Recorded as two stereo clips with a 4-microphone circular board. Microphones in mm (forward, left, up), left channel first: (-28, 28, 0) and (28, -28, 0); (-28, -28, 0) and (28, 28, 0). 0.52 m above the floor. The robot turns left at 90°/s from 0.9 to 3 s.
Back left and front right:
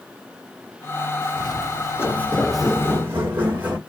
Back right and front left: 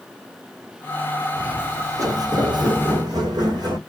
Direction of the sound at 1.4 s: 120° left.